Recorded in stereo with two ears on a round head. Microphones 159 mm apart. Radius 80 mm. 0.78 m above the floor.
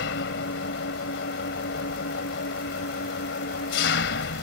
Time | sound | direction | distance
0.0 | an engine running | 70° left (ahead or behind) | ?